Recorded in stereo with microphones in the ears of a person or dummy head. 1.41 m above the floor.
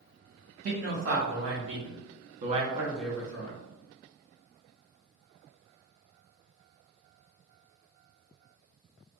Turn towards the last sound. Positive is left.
turn(degrees=35)  # may be behind; listen again after turning